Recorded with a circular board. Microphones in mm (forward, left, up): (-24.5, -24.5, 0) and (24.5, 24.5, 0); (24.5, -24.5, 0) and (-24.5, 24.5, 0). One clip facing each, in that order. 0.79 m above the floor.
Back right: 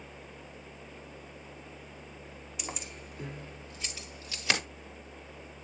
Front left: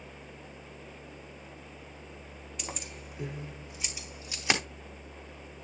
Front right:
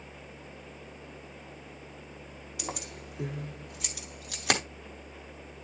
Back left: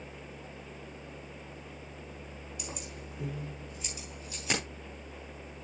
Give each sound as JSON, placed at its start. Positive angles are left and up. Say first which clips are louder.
{"t": 2.6, "sound": "keys jangling", "louder": "even, front right 6 dB", "azimuth_deg": -50, "distance_m": 1.5}